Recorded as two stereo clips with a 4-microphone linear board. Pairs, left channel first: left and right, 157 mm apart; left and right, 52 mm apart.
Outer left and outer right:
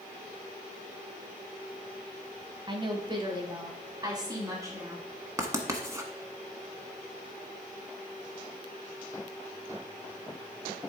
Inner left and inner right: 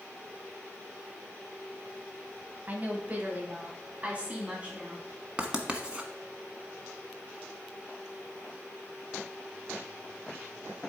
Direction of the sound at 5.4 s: 20° right (ahead or behind).